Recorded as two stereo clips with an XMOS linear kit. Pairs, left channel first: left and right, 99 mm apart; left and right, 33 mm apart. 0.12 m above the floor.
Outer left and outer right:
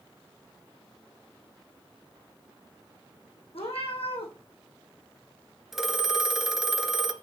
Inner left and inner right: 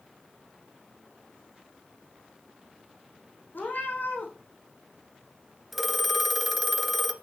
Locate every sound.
3.5 s a cat meowing: 80° left, 3.5 m
5.7 s a phone ringing: 5° right (ahead or behind), 1.2 m